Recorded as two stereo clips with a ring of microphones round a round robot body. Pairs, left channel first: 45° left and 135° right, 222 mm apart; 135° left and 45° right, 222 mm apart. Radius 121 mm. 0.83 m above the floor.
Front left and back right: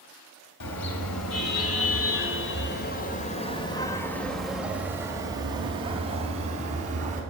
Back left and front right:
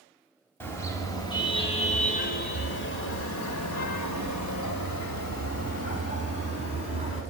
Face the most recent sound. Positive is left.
turn(degrees=165)